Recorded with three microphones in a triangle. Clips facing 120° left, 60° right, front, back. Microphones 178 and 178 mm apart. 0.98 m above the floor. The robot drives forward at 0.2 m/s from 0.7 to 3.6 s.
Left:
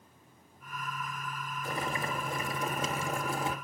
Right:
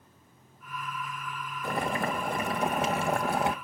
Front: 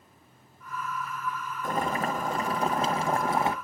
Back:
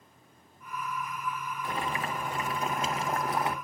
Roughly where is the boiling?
Ahead right.